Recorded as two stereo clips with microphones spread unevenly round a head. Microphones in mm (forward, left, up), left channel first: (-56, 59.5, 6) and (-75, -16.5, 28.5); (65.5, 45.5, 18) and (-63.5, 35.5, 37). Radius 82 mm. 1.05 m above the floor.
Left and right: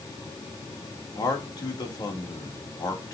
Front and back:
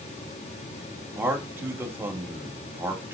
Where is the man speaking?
110° left, 2.5 m.